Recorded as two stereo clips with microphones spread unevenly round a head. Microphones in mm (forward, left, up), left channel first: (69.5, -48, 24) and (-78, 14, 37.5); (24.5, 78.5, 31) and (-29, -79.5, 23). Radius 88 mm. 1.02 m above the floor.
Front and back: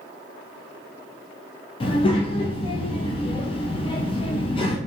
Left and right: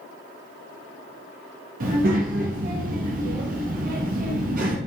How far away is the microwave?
No microwave in this recording.